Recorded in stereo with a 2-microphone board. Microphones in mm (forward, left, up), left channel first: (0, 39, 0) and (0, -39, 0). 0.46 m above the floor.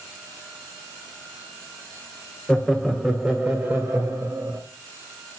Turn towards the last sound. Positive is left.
turn(degrees=-30)  # may be behind; listen again after turning